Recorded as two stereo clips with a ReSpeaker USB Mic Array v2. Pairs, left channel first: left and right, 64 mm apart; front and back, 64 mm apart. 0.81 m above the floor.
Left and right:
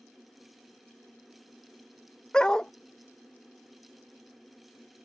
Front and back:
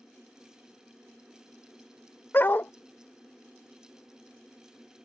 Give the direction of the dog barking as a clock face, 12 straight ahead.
11 o'clock.